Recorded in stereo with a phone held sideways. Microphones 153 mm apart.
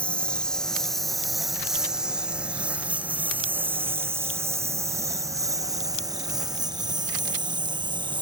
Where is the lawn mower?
5° left (ahead or behind); by 8.2 s 30° right (ahead or behind).